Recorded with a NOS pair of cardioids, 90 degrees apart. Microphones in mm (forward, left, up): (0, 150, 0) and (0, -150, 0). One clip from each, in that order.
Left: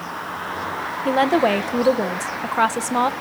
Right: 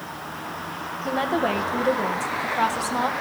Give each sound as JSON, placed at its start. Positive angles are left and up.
{"t": 1.1, "sound": "a woman speaking", "azimuth_deg": 40, "distance_m": 1.5}